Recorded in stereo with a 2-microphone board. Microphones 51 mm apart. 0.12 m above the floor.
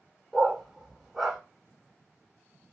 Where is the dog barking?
Centre (ahead or behind), 1.1 m.